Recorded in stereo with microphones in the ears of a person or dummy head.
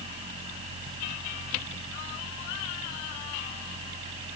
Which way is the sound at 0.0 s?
30° right (ahead or behind).